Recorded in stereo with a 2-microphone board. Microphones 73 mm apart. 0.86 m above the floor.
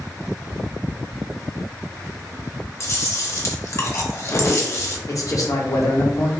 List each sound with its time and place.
2.8 s chewing: 45° left (ahead or behind), 0.7 m
5.1 s a man speaking: 50° left (ahead or behind), 0.8 m